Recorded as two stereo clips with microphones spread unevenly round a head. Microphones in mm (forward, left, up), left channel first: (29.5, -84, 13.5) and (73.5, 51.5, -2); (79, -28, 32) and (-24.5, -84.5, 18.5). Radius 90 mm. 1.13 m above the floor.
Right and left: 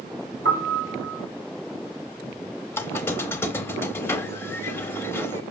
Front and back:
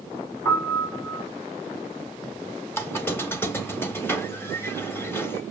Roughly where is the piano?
Left.